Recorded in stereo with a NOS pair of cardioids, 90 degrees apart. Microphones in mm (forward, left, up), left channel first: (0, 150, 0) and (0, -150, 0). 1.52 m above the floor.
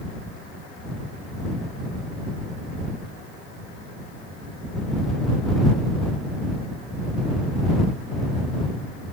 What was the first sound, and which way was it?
Only background noise.